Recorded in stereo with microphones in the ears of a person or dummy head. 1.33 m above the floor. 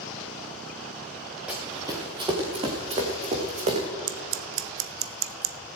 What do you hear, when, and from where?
1.5 s running footsteps: centre (ahead or behind), 1.6 m; by 3.9 s 35° right (ahead or behind), 3 m
4.1 s scissors: 65° right (ahead or behind), 0.7 m